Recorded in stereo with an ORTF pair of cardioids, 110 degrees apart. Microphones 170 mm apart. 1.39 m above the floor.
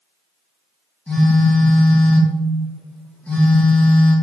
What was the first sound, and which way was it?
A phone buzzing, 10° left.